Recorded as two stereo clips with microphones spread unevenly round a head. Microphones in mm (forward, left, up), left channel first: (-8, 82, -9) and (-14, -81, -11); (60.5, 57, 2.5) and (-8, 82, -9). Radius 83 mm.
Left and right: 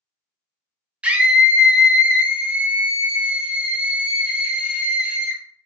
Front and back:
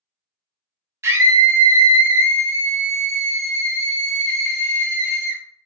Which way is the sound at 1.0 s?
170° right.